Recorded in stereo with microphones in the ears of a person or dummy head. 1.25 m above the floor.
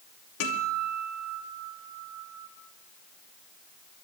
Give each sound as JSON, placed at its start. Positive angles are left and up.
{"t": 0.4, "sound": "a guitar", "side_deg": 85, "distance_m": 3.0}